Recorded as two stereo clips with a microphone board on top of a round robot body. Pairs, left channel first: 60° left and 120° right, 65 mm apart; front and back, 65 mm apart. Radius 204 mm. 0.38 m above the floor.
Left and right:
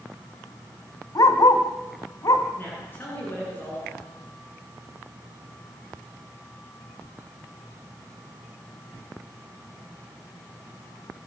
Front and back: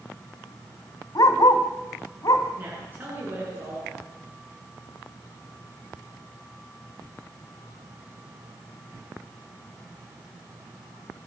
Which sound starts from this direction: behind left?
A woman speaking, at 2.6 s.